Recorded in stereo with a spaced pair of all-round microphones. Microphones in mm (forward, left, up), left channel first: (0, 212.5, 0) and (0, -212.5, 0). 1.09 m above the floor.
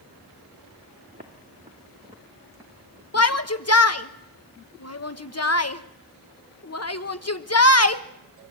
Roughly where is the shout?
Left.